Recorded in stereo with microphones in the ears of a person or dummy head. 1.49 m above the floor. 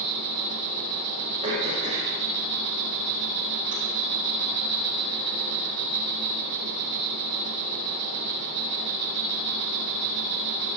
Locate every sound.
0.0 s an insect: 65° right (ahead or behind), 2.5 m
1.4 s throat clearing: 40° right (ahead or behind), 5.5 m